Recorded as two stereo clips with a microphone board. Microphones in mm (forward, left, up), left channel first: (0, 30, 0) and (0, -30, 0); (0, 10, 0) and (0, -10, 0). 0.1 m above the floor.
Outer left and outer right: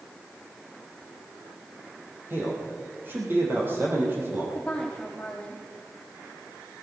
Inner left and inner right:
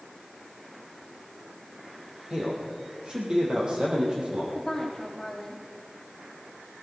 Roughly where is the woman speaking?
Centre.